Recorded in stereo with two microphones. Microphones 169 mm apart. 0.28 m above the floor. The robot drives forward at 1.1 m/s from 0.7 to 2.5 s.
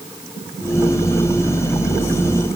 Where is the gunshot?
I don't hear a gunshot.